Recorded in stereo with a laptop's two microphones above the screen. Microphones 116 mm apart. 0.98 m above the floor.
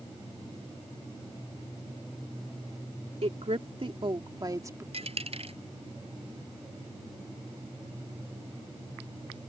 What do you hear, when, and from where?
3.2 s a woman speaking: 60° right (ahead or behind); by 4.8 s 25° right (ahead or behind)
4.9 s a dropped coin: 60° right (ahead or behind)